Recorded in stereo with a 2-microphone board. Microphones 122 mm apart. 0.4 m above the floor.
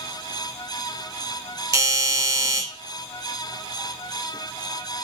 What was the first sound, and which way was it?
A doorbell, 30° right (ahead or behind).